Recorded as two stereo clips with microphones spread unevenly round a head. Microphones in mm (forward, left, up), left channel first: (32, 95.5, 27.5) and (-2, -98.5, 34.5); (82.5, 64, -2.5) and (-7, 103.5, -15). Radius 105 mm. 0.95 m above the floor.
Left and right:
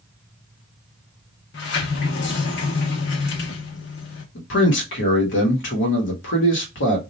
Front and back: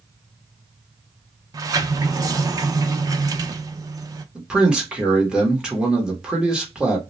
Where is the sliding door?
105° left, 0.5 m.